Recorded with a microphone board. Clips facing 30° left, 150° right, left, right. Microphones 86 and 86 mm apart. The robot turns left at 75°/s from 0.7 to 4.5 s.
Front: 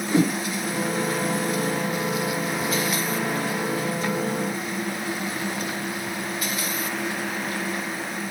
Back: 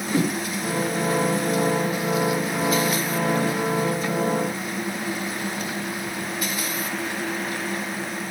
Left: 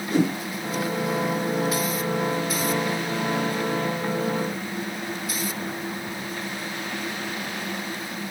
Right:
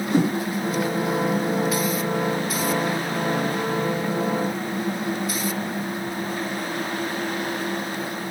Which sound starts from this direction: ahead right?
A whoosh, at 0.1 s.